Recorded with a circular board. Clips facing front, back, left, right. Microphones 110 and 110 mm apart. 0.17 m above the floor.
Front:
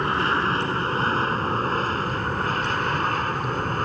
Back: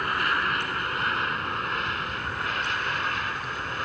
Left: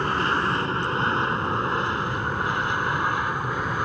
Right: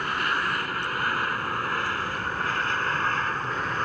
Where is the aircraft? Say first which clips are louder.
Front 4 dB, left 4 dB; 45° left; by 3.9 s 15° left.